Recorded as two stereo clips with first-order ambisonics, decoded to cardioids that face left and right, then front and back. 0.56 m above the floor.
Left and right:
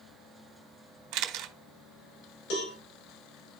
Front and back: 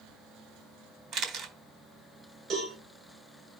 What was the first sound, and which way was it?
A camera shutter, 130° right.